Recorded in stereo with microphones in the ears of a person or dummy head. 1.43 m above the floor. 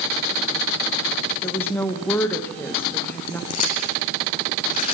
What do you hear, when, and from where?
1.4 s a woman speaking: 10° left (ahead or behind), 1.5 m
3.5 s chewing: 40° left (ahead or behind), 4 m